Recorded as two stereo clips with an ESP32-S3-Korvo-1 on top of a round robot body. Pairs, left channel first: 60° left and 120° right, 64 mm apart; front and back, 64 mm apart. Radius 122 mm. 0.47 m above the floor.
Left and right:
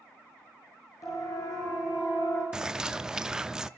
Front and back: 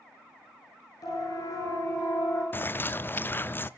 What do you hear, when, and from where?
1.0 s a siren: 25° left, 8 m; by 2.4 s 30° left, 7 m
2.5 s a bird: 45° right, 0.7 m